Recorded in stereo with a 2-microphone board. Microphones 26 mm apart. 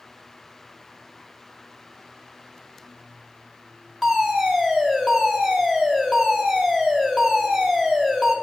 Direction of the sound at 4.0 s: Centre (ahead or behind).